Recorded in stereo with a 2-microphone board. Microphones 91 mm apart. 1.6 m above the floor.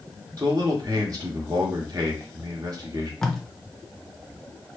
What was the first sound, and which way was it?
A man speaking, 40° right (ahead or behind).